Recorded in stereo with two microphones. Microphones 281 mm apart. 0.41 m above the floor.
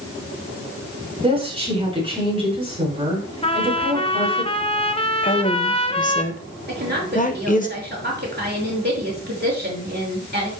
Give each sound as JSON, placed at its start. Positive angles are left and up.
{"t": 1.2, "sound": "a woman speaking", "side_deg": -20, "distance_m": 5.5}
{"t": 3.4, "sound": "a trumpet", "side_deg": 20, "distance_m": 0.8}
{"t": 5.2, "sound": "a woman speaking", "side_deg": 30, "distance_m": 1.2}
{"t": 6.7, "sound": "a woman speaking", "side_deg": -35, "distance_m": 6.0}